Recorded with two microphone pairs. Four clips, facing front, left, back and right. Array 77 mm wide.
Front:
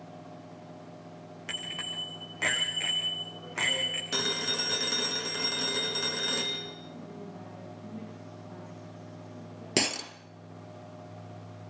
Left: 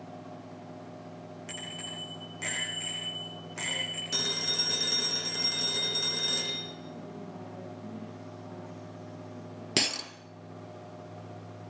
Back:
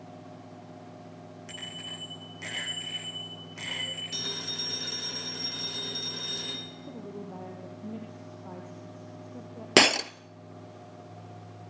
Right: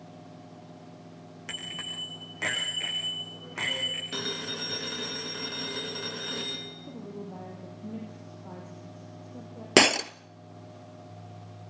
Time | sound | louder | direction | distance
1.5 | a bicycle bell | right 5 dB, front 6 dB | 50° right | 9.5 m
4.1 | a phone ringing | left 1 dB, front 7 dB | 10° right | 7 m
6.9 | a woman speaking | right 2 dB, back 3 dB | 145° right | 4.5 m
9.8 | breaking glass | right 12 dB, back 9 dB | 130° right | 0.7 m